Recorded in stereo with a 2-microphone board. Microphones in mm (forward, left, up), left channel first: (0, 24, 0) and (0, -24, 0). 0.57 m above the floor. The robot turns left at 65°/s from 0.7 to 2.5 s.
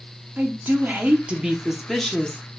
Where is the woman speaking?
105° right, 0.8 m; by 2.4 s 145° left, 0.8 m.